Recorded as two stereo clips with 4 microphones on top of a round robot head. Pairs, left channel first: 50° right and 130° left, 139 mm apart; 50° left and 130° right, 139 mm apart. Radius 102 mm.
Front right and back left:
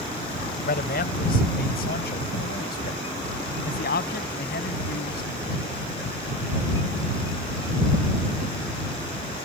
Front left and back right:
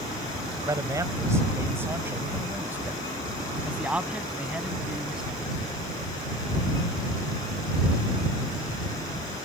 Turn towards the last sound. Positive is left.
turn(degrees=-45)